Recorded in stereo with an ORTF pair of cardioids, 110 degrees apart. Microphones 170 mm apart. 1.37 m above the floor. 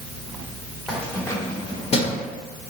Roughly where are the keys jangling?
Ahead.